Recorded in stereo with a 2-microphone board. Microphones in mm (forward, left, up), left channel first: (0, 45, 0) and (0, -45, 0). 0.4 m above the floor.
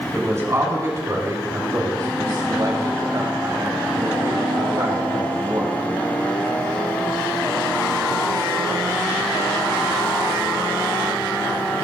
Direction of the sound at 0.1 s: 30° right (ahead or behind).